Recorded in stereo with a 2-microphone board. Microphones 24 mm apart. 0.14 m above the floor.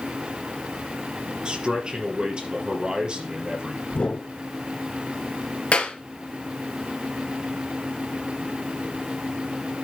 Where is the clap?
60° left (ahead or behind), 1.8 m.